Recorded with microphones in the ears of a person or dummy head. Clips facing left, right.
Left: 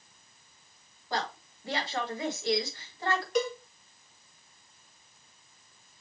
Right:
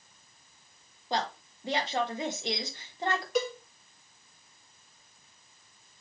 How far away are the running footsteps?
I don't hear running footsteps.